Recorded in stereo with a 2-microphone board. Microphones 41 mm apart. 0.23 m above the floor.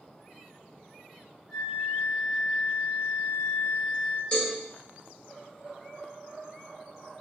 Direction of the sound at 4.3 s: 25° left (ahead or behind).